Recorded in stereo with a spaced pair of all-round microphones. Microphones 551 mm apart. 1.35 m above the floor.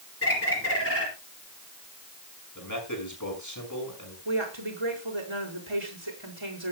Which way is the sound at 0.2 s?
25° left (ahead or behind).